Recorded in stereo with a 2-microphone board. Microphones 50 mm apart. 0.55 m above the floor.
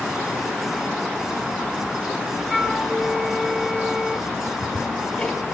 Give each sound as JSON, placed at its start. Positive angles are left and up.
{"t": 2.5, "sound": "a flute", "side_deg": -10, "distance_m": 2.5}
{"t": 4.3, "sound": "ticking", "side_deg": 10, "distance_m": 3.0}